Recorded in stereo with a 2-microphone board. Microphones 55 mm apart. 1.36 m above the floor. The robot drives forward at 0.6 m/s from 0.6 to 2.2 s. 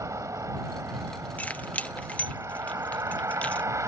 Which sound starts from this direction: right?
A vehicle, at 0.0 s.